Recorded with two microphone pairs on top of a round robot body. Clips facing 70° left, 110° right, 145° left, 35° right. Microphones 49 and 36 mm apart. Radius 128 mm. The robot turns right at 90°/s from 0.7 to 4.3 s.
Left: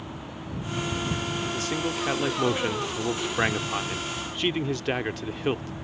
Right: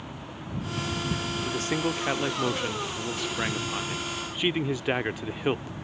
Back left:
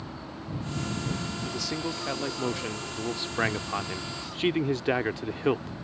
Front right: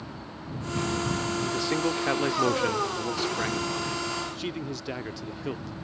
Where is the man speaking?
85° right; by 5.8 s 170° left.